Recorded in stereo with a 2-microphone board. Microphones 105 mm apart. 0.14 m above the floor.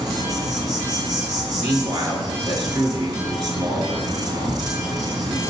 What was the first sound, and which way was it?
An insect, 50° right (ahead or behind).